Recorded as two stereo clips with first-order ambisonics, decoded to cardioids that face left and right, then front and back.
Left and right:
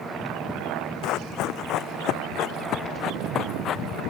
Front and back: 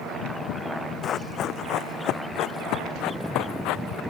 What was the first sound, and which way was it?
Running footsteps, 55° left.